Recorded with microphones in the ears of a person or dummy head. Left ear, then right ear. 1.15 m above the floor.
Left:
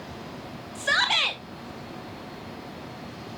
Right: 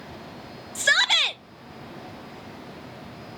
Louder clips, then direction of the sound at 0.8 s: Right 3 dB; 50° right (ahead or behind).